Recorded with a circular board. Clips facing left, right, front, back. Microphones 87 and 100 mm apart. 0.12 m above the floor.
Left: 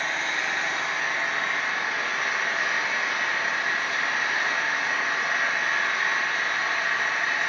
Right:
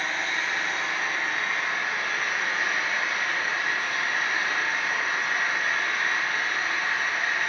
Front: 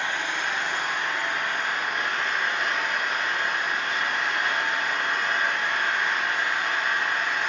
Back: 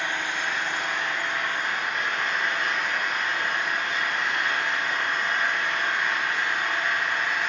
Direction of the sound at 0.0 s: 70° left.